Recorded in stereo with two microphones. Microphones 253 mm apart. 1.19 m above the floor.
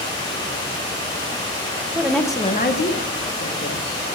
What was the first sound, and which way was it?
A woman speaking, 10° right (ahead or behind).